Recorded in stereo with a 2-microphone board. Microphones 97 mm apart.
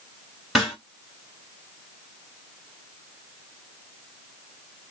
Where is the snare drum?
Centre (ahead or behind), 2 m.